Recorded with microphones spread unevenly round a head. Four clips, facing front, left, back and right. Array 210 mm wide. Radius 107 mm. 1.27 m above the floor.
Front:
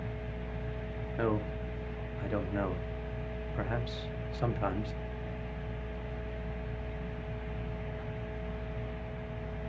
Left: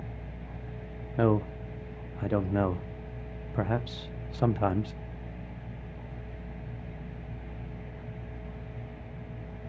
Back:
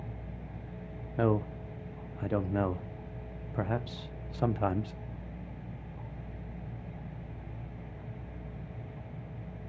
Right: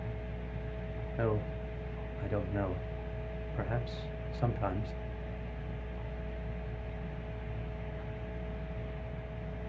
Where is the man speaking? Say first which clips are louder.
Left 8 dB, back 3 dB; 100° left, 0.5 m.